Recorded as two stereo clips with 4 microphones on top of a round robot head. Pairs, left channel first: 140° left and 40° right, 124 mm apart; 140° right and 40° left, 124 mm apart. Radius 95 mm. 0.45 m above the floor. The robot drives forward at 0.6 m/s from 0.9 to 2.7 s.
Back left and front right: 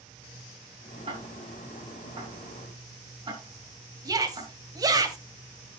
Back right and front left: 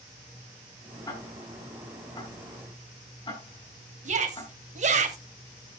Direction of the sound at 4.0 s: 20° left.